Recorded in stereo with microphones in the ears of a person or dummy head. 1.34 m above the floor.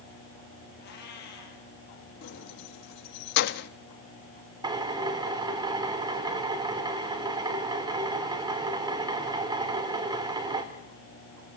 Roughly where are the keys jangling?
Left.